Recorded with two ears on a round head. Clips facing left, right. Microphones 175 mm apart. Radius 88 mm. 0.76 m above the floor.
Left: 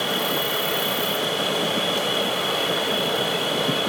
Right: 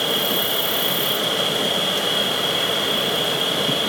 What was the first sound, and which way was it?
An insect, 10° right (ahead or behind).